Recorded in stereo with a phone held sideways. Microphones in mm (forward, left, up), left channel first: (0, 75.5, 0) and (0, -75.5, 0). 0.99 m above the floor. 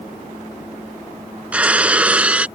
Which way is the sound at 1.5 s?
10° right (ahead or behind).